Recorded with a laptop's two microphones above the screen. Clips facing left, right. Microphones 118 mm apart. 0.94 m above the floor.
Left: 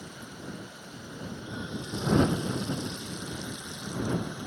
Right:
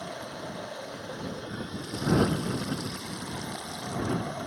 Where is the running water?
80° right.